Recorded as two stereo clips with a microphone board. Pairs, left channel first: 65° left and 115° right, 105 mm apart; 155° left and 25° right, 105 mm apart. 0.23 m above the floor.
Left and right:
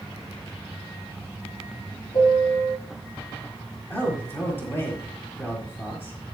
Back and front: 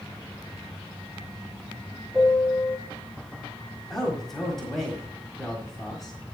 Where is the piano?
55° left, 2.5 m.